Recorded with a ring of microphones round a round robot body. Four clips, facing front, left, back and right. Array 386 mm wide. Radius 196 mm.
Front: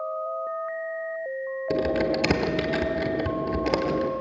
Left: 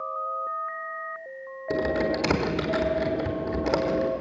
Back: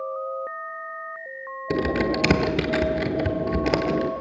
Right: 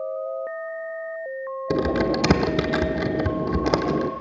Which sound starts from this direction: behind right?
Typing on a keyboard, at 1.7 s.